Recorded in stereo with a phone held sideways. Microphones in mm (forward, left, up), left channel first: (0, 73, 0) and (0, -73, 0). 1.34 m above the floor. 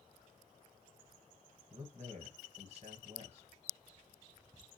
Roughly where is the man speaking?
Right.